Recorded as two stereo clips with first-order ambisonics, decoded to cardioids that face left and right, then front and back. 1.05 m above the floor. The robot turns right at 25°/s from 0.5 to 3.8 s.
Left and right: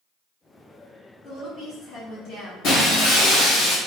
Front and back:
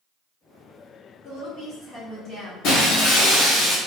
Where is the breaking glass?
45° left, 1.0 m; by 3.8 s 75° left, 1.0 m.